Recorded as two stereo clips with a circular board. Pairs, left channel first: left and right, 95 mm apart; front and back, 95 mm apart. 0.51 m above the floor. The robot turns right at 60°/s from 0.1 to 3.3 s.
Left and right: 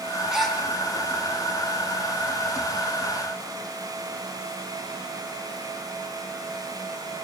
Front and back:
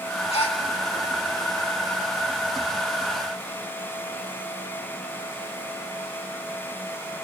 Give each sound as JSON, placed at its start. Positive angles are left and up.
{"t": 0.3, "sound": "a gasp", "azimuth_deg": -5, "distance_m": 4.0}